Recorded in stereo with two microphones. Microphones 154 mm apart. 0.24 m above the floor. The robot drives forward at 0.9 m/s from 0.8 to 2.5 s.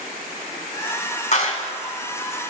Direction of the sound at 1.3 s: 50° left (ahead or behind).